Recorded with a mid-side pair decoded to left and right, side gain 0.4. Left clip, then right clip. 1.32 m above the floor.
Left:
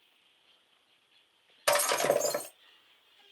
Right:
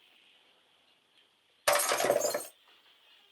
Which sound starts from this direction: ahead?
Breaking glass, at 1.7 s.